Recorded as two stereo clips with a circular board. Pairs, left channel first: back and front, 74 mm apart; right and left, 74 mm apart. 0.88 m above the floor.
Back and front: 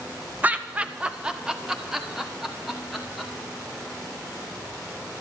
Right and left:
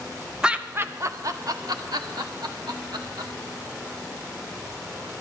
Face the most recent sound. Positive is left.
turn(degrees=90)